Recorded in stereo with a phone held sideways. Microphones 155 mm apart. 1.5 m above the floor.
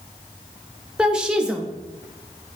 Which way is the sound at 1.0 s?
5° right (ahead or behind).